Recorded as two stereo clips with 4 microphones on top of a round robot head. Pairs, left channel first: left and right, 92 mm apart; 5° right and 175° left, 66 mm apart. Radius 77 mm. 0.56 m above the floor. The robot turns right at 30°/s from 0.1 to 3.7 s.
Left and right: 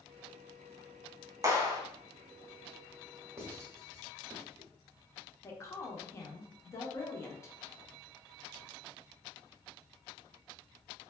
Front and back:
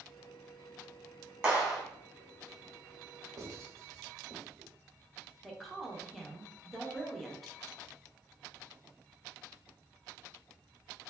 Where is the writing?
150° right, 1.0 m; by 4.7 s 140° right, 1.0 m.